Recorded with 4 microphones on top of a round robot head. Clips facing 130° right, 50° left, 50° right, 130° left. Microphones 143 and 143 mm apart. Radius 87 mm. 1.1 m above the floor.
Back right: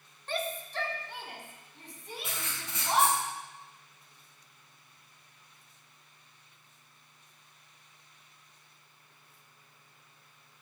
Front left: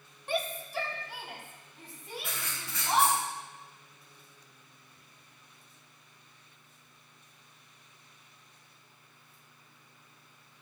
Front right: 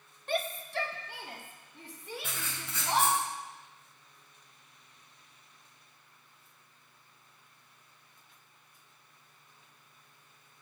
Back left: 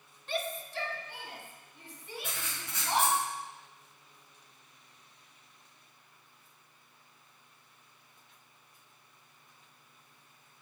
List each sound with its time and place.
0.3 s a shout: 25° right, 1.1 m; by 3.2 s 40° right, 3 m
2.2 s writing: 60° right, 2.5 m